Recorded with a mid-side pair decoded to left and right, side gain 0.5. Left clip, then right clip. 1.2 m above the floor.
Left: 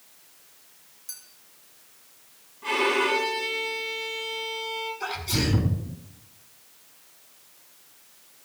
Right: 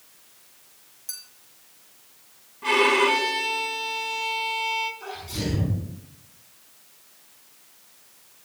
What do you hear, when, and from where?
1.1 s a clink: 25° right, 2.5 m
2.6 s a violin: 35° right, 5.5 m
5.0 s a sneeze: 65° left, 5 m